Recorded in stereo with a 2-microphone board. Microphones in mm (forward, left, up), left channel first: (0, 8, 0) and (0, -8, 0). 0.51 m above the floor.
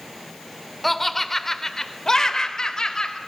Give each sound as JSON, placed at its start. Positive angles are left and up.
{"t": 0.8, "sound": "laughter", "side_deg": 15, "distance_m": 1.9}